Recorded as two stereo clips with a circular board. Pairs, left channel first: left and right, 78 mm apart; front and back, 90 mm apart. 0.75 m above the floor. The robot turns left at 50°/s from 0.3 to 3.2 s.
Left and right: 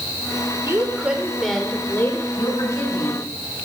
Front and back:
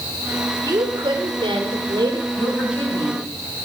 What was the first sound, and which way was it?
A woman speaking, 140° right.